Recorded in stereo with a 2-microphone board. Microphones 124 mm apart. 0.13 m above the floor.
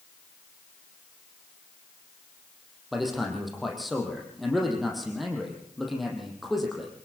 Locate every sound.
2.9 s a man speaking: centre (ahead or behind), 5.5 m